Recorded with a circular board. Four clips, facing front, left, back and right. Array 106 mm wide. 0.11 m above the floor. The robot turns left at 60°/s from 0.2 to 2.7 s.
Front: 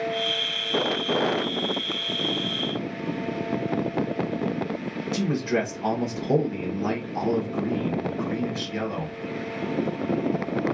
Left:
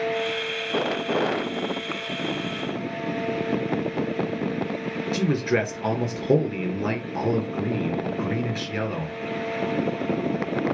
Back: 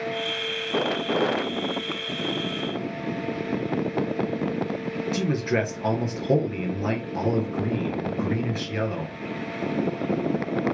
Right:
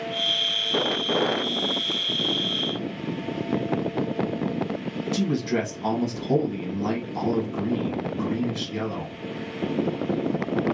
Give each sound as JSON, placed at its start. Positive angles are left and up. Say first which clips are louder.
{"t": 5.1, "sound": "a man speaking", "louder": "left 2 dB, front 1 dB", "azimuth_deg": 110, "distance_m": 1.7}